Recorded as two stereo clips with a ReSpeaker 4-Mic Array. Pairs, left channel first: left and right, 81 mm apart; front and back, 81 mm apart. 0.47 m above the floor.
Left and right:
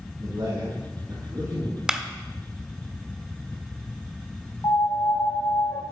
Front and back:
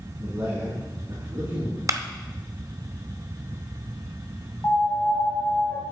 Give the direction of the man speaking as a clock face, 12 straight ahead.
4 o'clock.